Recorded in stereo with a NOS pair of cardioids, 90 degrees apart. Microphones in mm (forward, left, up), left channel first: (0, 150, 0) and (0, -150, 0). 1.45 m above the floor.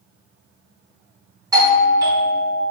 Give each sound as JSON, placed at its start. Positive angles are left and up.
{"t": 1.5, "sound": "a doorbell", "azimuth_deg": -10, "distance_m": 0.9}